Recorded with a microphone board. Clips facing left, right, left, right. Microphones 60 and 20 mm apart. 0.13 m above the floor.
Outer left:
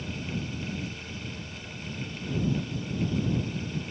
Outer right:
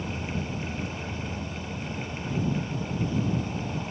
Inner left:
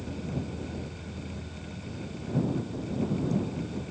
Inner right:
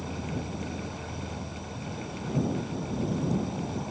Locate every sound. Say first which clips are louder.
0.0 s an insect: outer right 2 dB, inner right 1 dB; 80° right